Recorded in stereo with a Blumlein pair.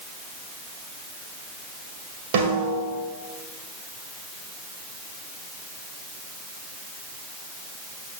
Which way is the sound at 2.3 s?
50° right.